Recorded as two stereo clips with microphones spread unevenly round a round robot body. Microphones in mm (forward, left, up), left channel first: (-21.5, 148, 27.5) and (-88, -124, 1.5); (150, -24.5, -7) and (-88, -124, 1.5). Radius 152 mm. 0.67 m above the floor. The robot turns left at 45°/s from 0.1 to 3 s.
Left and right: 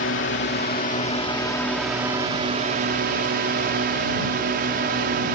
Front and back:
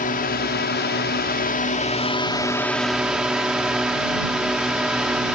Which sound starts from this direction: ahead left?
A drone, at 0.0 s.